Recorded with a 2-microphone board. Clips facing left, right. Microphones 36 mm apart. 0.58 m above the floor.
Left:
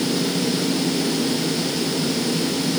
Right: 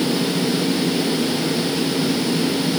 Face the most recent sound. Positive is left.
No sound to turn to.